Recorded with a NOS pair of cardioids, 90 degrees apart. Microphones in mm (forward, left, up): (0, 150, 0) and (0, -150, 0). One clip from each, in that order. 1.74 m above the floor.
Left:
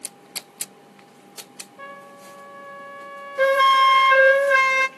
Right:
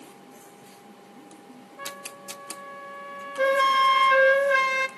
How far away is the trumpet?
About 0.6 m.